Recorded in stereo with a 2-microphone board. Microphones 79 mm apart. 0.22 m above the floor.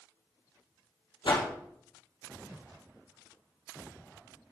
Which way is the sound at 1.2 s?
75° left (ahead or behind).